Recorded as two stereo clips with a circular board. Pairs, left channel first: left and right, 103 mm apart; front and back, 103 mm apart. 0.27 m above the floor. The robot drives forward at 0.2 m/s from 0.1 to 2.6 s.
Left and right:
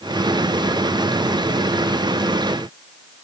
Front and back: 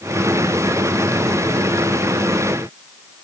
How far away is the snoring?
No snoring in this recording.